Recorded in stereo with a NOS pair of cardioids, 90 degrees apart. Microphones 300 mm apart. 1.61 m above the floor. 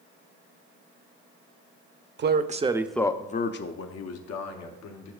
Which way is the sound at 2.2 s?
40° right.